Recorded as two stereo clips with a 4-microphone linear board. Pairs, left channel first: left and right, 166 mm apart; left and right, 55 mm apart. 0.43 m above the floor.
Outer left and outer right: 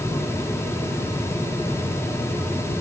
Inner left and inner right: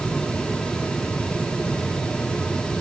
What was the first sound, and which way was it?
Only background noise.